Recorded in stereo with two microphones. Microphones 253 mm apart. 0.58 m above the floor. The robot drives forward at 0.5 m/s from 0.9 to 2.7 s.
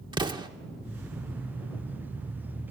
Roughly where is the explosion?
Centre.